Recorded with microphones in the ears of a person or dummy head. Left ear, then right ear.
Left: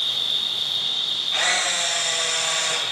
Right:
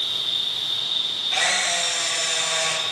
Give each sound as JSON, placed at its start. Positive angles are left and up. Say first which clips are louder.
{"t": 0.0, "sound": "an insect", "louder": "left 1 dB", "side_deg": -30, "distance_m": 1.9}
{"t": 1.3, "sound": "a camera shutter", "louder": "right 1 dB", "side_deg": -50, "distance_m": 1.3}